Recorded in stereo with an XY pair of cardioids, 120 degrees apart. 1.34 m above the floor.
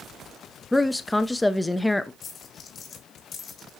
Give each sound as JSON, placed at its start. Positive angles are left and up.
{"t": 0.7, "sound": "a woman speaking", "azimuth_deg": 10, "distance_m": 0.6}
{"t": 2.2, "sound": "a dropped coin", "azimuth_deg": 50, "distance_m": 2.5}